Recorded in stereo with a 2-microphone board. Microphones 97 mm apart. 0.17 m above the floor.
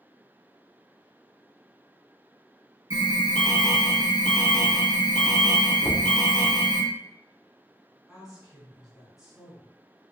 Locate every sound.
2.9 s an alarm: 35° right (ahead or behind), 1.0 m
5.8 s knocking: 5° left (ahead or behind), 0.7 m
8.1 s a woman speaking: 5° right (ahead or behind), 1.5 m